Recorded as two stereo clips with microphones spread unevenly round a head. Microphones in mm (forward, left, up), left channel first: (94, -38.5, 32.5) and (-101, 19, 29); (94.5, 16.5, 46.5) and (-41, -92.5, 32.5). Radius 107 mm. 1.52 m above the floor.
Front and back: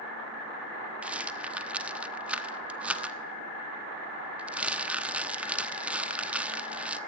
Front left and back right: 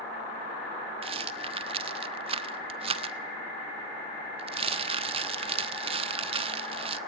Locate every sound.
1.0 s a rattle: 115° right, 1.0 m